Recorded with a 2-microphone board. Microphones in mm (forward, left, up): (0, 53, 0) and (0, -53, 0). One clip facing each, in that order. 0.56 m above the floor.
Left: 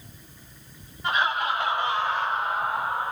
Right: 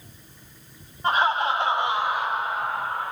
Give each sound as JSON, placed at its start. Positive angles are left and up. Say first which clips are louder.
{"t": 1.0, "sound": "laughter", "louder": "right 3 dB", "side_deg": -35, "distance_m": 1.4}